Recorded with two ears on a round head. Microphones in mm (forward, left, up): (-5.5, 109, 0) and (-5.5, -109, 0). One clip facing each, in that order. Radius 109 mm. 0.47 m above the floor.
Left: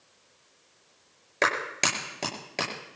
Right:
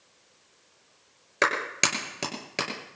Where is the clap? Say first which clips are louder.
Even; 15° right (ahead or behind), 7.5 m.